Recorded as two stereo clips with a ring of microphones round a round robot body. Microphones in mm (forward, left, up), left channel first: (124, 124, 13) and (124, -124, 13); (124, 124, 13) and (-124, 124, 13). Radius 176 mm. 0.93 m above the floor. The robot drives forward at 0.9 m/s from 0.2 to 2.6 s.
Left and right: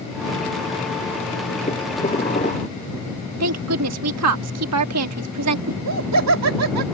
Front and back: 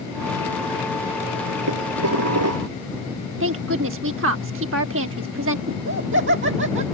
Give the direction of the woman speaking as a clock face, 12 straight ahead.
4 o'clock.